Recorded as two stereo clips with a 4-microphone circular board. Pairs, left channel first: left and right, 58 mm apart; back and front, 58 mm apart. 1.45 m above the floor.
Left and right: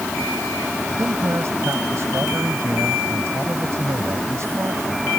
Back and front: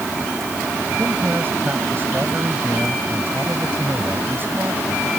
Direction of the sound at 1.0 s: 50° right.